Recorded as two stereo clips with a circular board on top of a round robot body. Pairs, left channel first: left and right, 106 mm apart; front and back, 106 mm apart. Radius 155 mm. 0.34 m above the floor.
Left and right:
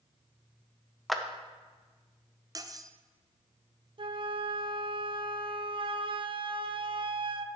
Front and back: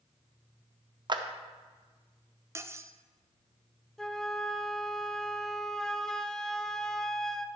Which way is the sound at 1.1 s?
Straight behind.